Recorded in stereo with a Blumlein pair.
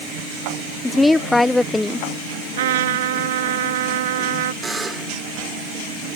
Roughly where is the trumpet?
Ahead right.